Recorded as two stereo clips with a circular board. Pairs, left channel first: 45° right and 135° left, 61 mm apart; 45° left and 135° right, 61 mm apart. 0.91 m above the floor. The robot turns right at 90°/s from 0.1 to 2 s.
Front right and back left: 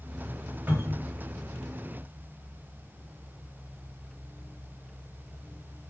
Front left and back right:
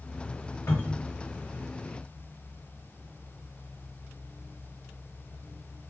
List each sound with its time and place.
0.7 s a cupboard door: 75° left, 3.5 m; by 1.1 s 115° left, 3.5 m